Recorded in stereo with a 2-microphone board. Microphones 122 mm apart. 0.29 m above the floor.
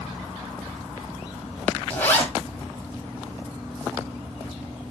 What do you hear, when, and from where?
1.9 s a zipper: 15° left (ahead or behind), 1.0 m